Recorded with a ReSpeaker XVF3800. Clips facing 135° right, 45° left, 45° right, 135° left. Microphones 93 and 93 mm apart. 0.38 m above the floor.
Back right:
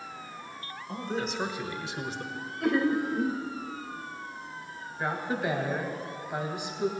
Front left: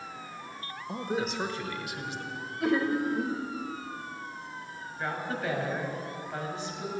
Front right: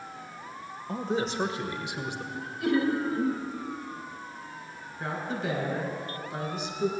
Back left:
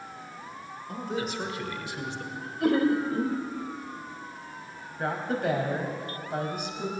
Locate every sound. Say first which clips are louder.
0.9 s a man speaking: front left 1 dB, front right 3 dB; 15° right, 1.1 m; by 2.2 s 115° right, 1.2 m
2.3 s laughter: even, back left 2 dB; 130° left, 1.3 m
5.0 s a woman speaking: back right 3 dB, back left 4 dB; 150° left, 2.5 m